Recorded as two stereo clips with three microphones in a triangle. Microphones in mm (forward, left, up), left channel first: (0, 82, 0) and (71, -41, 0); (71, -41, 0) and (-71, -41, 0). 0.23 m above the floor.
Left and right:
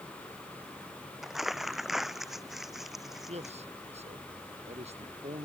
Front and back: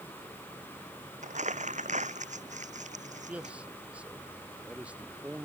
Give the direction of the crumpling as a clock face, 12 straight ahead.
5 o'clock.